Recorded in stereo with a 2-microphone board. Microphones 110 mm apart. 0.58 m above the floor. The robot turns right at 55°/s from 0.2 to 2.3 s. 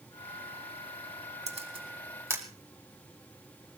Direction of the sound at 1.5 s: 70° right (ahead or behind).